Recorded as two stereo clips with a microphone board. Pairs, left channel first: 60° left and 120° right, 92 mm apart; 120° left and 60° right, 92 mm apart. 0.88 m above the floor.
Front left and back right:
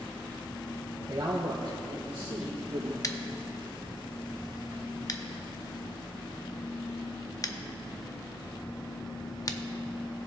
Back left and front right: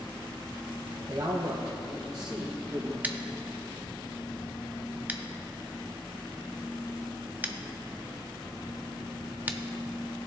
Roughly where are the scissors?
Ahead.